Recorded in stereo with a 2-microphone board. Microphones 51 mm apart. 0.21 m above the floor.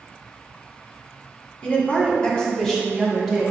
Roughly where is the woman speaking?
Left.